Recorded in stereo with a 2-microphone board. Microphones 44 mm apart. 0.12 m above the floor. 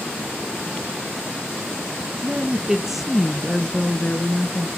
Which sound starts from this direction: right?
A woman speaking, at 2.2 s.